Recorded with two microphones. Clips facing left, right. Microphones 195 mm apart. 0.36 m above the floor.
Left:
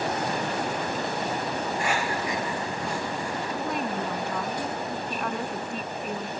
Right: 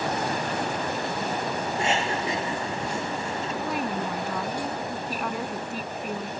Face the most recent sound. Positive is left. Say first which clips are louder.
# right 1 dB
turn(degrees=0)  # may be behind; listen again after turning